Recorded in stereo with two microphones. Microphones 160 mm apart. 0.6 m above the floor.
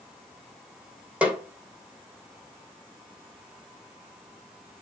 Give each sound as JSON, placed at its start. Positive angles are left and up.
{"t": 1.2, "sound": "a snare drum", "side_deg": -10, "distance_m": 2.5}